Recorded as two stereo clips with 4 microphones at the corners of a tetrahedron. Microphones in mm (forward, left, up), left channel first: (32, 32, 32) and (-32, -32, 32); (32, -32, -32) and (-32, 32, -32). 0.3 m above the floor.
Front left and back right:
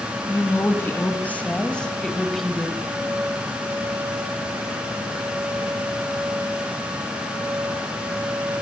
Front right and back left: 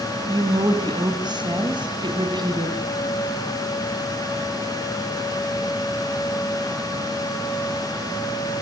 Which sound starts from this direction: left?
A woman speaking, at 0.3 s.